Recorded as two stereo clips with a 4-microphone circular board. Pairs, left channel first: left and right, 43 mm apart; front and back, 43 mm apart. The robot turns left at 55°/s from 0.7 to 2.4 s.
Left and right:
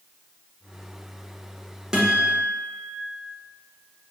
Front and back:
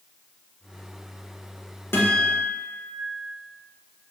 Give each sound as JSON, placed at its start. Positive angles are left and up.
{"t": 1.9, "sound": "a guitar", "azimuth_deg": -15, "distance_m": 0.8}